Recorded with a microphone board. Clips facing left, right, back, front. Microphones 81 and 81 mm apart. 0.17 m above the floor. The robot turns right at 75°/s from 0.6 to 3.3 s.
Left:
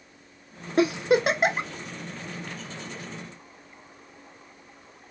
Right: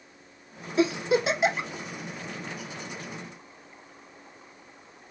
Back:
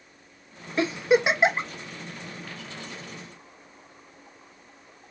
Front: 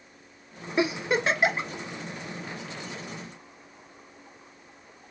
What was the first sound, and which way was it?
A giggle, 70° left.